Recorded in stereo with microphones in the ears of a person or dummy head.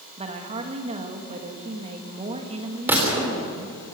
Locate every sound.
0.2 s a woman speaking: 30° right (ahead or behind), 1.8 m
2.9 s a gunshot: 5° right (ahead or behind), 3.5 m